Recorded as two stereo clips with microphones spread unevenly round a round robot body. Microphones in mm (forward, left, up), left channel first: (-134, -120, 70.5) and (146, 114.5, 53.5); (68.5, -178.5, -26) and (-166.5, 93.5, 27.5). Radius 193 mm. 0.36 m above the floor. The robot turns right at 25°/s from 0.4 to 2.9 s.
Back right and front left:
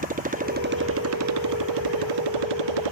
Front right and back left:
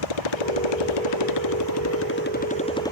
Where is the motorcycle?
30° right; by 2.9 s 35° left.